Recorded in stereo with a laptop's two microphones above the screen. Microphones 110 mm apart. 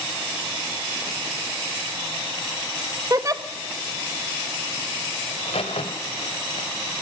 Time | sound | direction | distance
3.1 | a giggle | 30° right (ahead or behind) | 1.0 m
5.3 | a crack | 80° left | 2.5 m